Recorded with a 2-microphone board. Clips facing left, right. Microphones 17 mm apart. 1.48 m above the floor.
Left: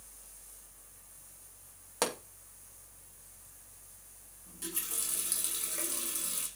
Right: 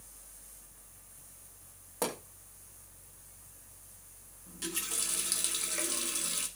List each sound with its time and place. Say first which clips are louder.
2.0 s a pop: left 2 dB; 55° left (ahead or behind), 2.5 m
4.5 s a running tap: right 4 dB; 30° right (ahead or behind), 1.7 m